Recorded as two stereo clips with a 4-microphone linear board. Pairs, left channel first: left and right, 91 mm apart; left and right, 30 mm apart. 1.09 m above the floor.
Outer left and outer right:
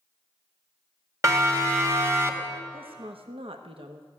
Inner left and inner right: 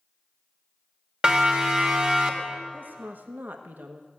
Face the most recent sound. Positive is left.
turn(degrees=-80)